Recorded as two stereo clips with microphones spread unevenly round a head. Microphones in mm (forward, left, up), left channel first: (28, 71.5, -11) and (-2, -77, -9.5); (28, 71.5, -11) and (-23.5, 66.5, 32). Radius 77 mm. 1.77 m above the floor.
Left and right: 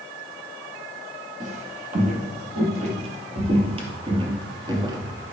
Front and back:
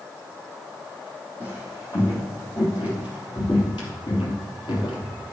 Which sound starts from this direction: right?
Footsteps, at 1.4 s.